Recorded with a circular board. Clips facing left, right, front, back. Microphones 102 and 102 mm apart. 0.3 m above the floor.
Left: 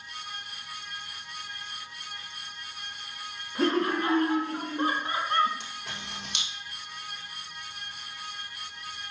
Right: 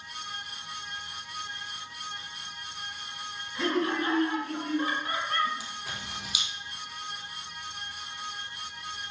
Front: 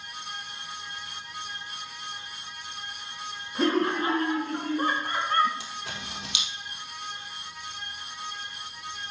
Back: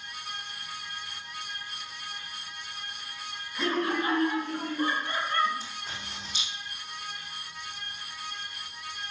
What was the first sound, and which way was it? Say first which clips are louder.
Laughter: left 2 dB, front 4 dB; 40° left.